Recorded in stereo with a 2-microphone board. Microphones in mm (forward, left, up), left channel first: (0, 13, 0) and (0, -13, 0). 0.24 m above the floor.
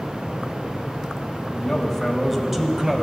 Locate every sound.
1.6 s a man speaking: 20° left (ahead or behind), 1.2 m; by 3.0 s 25° right (ahead or behind), 1.4 m